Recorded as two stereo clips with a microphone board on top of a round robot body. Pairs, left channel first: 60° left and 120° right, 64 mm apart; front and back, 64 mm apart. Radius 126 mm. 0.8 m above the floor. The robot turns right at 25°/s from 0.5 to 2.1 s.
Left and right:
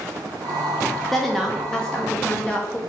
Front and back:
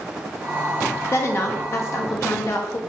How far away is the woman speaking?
About 0.6 m.